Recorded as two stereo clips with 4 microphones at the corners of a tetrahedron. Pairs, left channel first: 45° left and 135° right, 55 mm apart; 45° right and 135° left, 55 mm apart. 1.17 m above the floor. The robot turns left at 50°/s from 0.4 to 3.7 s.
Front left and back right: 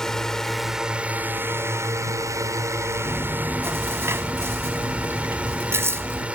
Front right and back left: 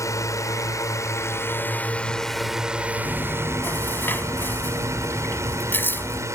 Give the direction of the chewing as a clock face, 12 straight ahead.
2 o'clock.